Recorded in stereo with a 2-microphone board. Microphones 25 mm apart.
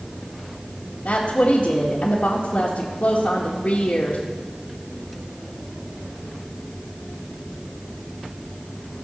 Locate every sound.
1.1 s a woman speaking: 55° left (ahead or behind), 1.7 m